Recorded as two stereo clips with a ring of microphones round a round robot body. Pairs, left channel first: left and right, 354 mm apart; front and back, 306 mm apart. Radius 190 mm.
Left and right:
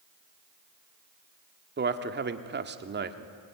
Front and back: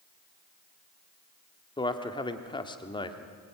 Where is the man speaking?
60° right, 1.4 m.